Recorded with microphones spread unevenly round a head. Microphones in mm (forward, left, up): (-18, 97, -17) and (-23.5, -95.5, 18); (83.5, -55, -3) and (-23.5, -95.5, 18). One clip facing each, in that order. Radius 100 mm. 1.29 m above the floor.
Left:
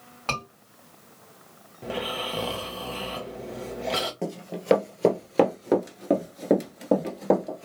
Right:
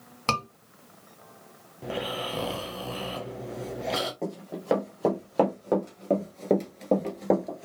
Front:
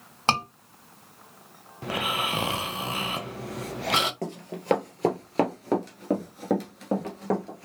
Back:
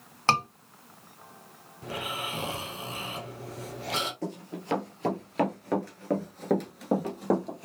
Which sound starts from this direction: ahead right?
A scream, at 0.3 s.